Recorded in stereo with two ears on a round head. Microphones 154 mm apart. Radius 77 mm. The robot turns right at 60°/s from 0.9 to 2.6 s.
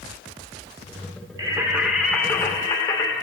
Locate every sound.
1.4 s singing: 40° right, 1.0 m; by 3.1 s 35° left, 1.0 m